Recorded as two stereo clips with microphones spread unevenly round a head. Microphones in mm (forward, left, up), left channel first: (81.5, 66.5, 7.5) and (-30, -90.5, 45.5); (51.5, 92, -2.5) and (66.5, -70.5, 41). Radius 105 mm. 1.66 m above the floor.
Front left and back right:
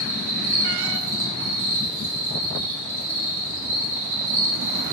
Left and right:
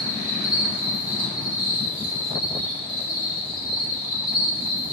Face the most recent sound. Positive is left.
turn(degrees=150)